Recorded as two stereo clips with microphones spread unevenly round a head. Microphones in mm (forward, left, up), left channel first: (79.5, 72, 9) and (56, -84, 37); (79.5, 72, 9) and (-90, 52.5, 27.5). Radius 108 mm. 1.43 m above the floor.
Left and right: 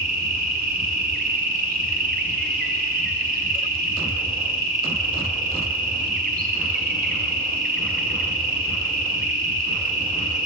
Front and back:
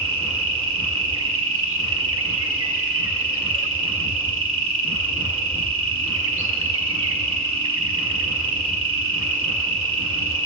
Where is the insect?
150° right, 0.8 m.